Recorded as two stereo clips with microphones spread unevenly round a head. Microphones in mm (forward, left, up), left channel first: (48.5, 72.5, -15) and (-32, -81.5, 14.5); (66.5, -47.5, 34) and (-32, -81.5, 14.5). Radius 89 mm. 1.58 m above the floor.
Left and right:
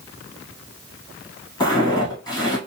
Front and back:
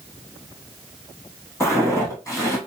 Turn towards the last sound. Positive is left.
turn(degrees=0)